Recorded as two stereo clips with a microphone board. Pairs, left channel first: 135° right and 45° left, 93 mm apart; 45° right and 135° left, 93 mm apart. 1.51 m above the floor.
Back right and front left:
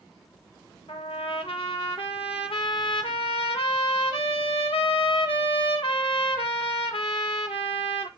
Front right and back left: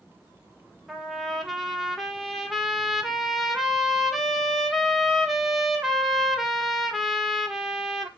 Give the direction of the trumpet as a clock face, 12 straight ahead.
5 o'clock.